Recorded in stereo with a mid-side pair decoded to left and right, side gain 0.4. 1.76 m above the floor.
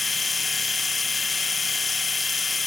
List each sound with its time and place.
0.0 s a machine running: 30° left, 1.4 m